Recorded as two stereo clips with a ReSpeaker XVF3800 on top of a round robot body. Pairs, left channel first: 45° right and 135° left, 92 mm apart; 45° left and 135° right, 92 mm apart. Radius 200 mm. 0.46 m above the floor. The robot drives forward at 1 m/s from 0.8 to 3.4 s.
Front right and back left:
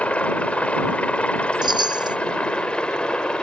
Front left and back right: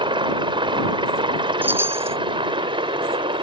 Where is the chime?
160° left; by 2.2 s 165° left.